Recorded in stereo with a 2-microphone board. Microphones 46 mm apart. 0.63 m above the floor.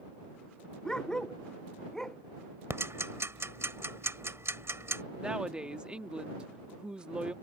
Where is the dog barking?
15° left (ahead or behind); by 2.2 s 10° left (ahead or behind).